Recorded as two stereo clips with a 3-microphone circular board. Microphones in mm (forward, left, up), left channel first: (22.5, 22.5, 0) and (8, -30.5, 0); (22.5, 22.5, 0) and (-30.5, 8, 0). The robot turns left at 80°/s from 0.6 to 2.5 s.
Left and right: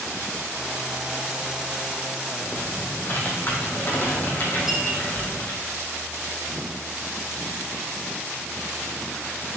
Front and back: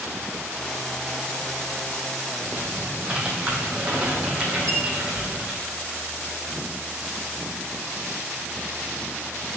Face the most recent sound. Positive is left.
turn(degrees=175)